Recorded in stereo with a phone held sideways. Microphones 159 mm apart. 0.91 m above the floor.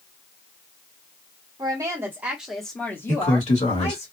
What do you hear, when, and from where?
1.6 s a woman speaking: 25° right (ahead or behind), 1.3 m; by 4.1 s 45° left (ahead or behind), 1.1 m
3.1 s a man speaking: 45° left (ahead or behind), 1.6 m